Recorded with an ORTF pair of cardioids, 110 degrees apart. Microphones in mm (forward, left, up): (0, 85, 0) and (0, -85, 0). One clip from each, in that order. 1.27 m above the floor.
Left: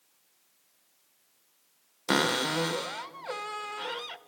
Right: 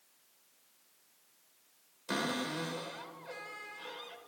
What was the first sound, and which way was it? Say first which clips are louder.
A cupboard door: left 9 dB; 65° left.